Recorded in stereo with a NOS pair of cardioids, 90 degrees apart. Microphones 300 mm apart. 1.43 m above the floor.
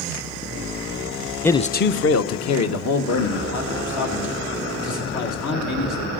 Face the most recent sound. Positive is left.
turn(degrees=75)